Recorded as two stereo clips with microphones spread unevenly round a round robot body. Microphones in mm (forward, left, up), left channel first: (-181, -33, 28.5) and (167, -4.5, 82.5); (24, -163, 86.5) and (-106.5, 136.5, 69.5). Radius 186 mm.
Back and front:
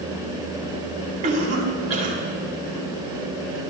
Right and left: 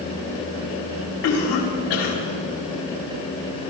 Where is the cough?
45° right, 4.5 m.